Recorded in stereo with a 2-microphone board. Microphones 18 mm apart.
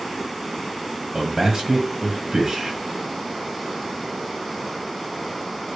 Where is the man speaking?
25° right (ahead or behind), 1.0 m.